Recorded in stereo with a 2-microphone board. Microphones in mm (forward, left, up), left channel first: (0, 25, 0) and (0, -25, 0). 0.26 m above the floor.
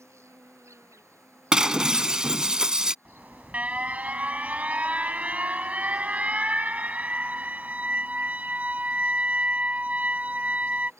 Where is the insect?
75° right (ahead or behind).